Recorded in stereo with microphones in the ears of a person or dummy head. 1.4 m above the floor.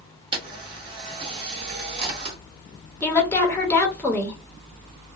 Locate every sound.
0.3 s a camera shutter: 30° right (ahead or behind), 1.1 m
3.0 s a woman speaking: 10° left (ahead or behind), 0.9 m